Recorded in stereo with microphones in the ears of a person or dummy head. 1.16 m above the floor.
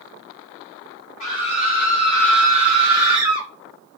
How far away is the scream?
About 4 m.